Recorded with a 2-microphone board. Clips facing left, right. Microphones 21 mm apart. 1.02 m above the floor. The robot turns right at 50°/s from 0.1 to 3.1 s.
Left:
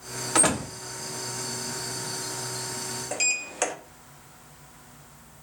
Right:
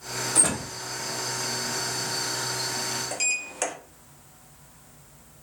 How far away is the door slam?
About 1.3 m.